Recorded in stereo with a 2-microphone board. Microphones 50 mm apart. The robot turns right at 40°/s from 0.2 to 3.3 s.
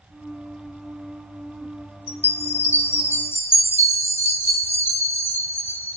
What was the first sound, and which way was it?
A chime, 35° left.